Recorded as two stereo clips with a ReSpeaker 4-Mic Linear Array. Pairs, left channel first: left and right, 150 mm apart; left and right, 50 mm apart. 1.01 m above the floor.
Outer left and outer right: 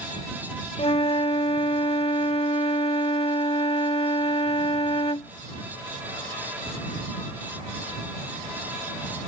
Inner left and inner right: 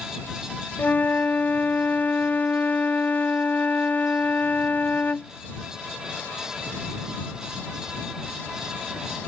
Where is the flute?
40° left (ahead or behind).